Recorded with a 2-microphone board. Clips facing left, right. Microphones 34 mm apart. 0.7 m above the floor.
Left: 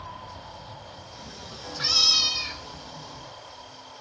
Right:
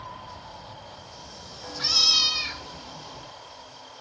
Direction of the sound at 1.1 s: 45° left (ahead or behind).